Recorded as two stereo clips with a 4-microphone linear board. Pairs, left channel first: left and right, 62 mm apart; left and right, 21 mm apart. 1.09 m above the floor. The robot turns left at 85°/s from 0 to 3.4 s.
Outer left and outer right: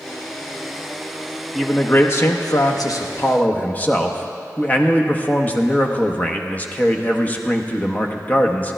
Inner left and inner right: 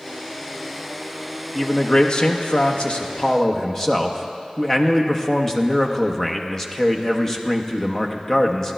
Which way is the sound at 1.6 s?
Straight behind.